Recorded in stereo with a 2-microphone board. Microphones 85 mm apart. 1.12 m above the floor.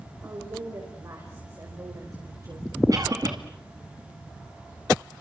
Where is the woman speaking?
45° right (ahead or behind), 5 m.